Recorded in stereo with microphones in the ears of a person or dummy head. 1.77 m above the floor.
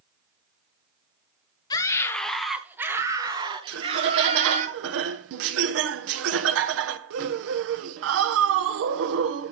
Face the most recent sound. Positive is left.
turn(degrees=-70)  # may be behind; listen again after turning